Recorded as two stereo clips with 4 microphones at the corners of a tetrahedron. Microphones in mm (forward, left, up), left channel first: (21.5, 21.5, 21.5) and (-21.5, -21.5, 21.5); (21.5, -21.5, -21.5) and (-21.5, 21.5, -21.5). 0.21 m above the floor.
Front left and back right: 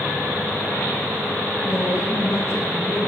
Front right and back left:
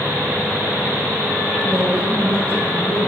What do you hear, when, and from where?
1.6 s a woman speaking: 65° left, 2.5 m; by 3.1 s 75° left, 4 m